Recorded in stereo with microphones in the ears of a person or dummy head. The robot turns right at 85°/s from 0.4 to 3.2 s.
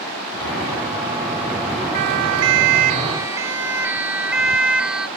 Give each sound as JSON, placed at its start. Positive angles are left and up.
{"t": 1.9, "sound": "a siren", "side_deg": -45}